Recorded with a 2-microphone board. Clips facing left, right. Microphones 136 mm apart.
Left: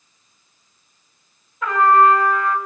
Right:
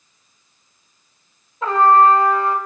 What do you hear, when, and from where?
1.6 s a trumpet: 30° right (ahead or behind), 3 m